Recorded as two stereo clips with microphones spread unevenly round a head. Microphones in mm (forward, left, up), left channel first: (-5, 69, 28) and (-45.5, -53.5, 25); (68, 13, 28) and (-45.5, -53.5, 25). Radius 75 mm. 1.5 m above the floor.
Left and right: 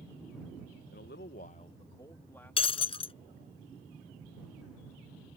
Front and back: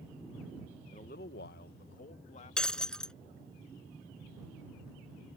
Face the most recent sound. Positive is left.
turn(degrees=115)